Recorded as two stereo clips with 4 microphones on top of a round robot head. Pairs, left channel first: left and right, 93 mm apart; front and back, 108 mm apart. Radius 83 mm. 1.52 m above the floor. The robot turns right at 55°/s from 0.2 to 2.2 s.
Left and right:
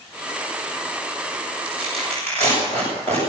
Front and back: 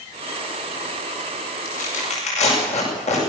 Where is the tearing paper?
15° right, 8 m; by 3.2 s 15° left, 8 m.